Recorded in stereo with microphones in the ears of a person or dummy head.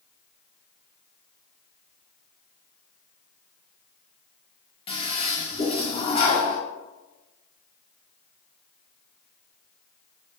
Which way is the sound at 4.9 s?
35° left (ahead or behind).